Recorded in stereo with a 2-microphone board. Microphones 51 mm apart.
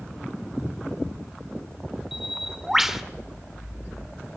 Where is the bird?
5° right (ahead or behind), 1.0 m.